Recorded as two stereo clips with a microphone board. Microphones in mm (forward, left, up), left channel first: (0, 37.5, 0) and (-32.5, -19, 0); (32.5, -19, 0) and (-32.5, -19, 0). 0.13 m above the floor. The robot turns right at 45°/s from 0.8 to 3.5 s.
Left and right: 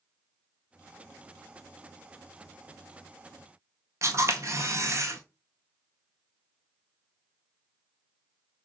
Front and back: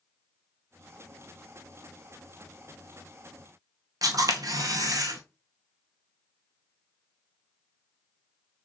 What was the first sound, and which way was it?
A camera shutter, 160° right.